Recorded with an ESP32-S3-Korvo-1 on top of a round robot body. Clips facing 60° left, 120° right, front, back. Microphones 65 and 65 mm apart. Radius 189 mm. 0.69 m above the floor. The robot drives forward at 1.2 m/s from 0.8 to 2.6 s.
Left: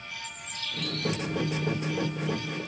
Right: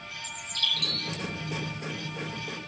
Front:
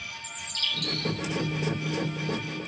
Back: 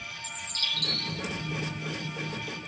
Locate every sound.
0.2 s a bird: 130° right, 5.5 m; by 1.2 s 135° right, 6 m